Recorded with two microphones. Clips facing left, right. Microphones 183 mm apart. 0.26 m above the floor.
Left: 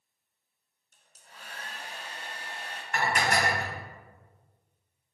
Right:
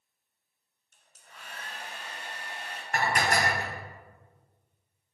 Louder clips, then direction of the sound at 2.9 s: Even; 40° right (ahead or behind).